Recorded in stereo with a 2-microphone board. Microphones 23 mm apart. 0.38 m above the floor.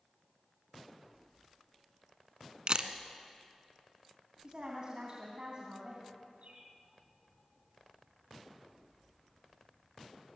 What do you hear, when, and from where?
2.7 s a camera shutter: 45° right (ahead or behind), 1.2 m
4.4 s a woman speaking: 45° right (ahead or behind), 3 m
6.4 s a bird: 70° right (ahead or behind), 3 m